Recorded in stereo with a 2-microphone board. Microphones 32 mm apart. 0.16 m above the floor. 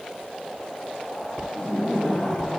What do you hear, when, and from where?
1.5 s laughter: 10° left (ahead or behind), 6 m